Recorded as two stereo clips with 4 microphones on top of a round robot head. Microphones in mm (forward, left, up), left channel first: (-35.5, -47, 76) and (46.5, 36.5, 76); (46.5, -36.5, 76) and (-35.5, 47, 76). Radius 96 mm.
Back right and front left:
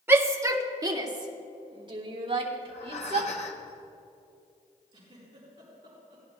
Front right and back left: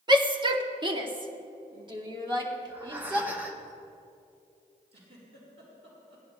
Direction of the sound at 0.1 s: 110° left.